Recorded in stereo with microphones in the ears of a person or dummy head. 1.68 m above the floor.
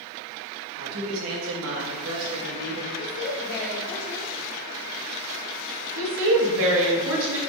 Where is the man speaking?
85° right, 0.8 m; by 2.9 s 65° right (ahead or behind), 1.8 m.